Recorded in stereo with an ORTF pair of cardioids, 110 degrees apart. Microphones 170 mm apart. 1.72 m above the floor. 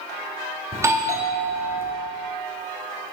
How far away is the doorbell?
About 0.9 m.